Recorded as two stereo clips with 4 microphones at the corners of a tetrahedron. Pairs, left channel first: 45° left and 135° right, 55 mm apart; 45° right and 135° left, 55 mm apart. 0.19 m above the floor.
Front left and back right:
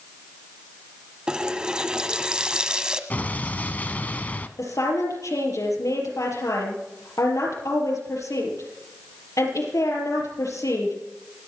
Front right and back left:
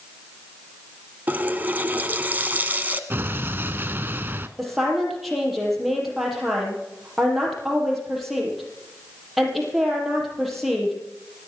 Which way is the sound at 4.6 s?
45° left.